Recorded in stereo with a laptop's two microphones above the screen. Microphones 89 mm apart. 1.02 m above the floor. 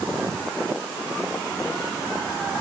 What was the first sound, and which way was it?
Only background noise.